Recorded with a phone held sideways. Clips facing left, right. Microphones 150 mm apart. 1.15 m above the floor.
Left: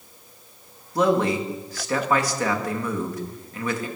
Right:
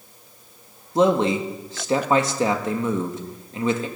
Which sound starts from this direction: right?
A man speaking, at 0.9 s.